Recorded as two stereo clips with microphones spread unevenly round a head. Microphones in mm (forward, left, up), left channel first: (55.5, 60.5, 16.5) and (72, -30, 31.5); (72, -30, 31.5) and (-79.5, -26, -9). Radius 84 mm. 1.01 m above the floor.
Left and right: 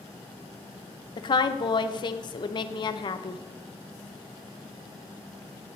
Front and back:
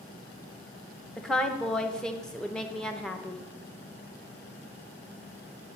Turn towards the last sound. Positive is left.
turn(degrees=95)